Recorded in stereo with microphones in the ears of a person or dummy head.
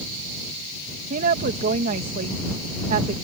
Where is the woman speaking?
45° right (ahead or behind).